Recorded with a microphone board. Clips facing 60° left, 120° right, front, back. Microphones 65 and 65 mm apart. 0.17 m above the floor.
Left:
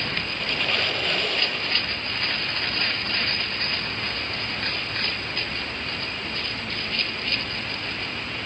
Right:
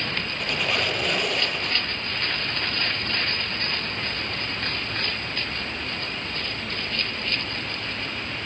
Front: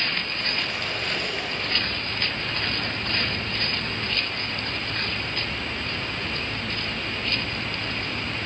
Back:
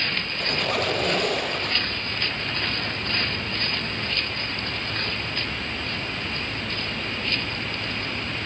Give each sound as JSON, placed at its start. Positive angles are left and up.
{"t": 0.4, "sound": "a squeak", "azimuth_deg": 160, "distance_m": 0.9}